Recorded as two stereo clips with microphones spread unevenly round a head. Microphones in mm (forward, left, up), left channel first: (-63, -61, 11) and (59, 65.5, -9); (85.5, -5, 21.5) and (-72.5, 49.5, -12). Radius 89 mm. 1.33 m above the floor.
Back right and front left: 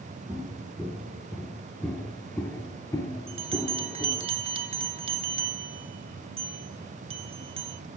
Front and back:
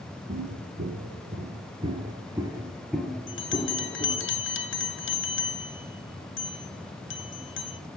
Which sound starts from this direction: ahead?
A bell, at 3.3 s.